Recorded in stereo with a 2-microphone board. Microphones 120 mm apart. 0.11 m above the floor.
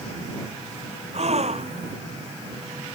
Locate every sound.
1.1 s a gasp: 65° right (ahead or behind)